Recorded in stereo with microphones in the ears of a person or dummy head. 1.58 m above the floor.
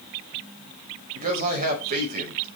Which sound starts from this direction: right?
A man speaking, at 1.1 s.